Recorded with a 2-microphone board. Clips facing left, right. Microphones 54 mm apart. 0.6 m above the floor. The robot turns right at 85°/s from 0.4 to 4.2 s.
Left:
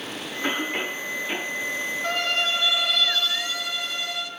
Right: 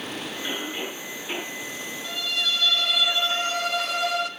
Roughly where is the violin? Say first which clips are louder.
Left 3 dB; left.